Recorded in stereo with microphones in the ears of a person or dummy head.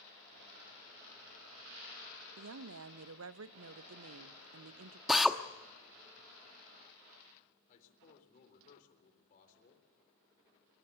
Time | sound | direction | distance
2.4 | a woman speaking | 80° right | 0.9 m
5.1 | a drill | centre (ahead or behind) | 0.8 m
7.7 | a man speaking | 45° left (ahead or behind) | 4 m